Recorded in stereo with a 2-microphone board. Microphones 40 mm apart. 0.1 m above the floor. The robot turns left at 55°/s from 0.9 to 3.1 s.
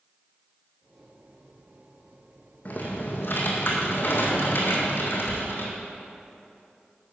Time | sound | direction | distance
2.6 | typing on a keyboard | 40° left (ahead or behind) | 1.8 m